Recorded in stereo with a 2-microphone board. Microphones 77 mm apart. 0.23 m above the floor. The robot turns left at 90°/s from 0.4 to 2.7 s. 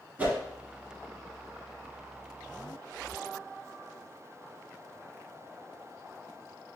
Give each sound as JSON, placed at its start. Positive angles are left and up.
{"t": 0.2, "sound": "a whoosh", "side_deg": -20, "distance_m": 2.0}